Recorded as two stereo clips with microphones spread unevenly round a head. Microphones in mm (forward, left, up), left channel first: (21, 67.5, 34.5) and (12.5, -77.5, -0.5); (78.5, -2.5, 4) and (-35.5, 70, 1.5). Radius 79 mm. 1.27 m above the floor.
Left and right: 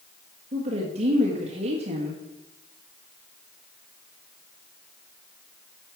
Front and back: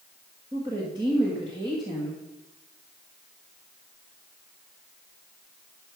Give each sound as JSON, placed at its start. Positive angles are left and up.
{"t": 0.5, "sound": "a woman speaking", "azimuth_deg": -145, "distance_m": 1.5}